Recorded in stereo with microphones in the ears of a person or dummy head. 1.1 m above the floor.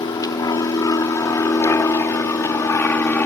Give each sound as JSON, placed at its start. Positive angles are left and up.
{"t": 0.0, "sound": "an aircraft", "side_deg": 25}